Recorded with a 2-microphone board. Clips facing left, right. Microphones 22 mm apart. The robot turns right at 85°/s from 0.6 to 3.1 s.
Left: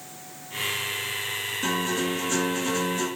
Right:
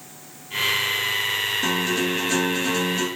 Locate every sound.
1.6 s a guitar: 155° right, 1.1 m; by 3.1 s 30° right, 1.1 m